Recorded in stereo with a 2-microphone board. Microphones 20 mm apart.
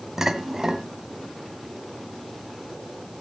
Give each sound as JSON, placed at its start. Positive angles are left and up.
{"t": 0.2, "sound": "dishes clattering", "side_deg": -25, "distance_m": 2.0}